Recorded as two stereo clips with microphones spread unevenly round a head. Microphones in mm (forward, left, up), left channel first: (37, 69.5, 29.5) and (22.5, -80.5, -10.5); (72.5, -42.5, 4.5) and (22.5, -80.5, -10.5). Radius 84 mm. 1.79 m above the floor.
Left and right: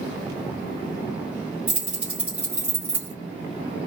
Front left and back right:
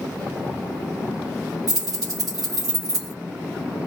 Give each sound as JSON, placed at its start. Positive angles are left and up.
{"t": 1.7, "sound": "keys jangling", "azimuth_deg": 170, "distance_m": 1.5}